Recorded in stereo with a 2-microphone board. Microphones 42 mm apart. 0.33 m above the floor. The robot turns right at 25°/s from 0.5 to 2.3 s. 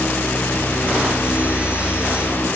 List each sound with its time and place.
Only background noise.